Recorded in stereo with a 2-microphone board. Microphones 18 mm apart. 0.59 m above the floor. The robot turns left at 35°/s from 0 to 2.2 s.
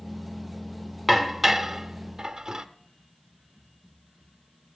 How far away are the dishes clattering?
About 0.8 m.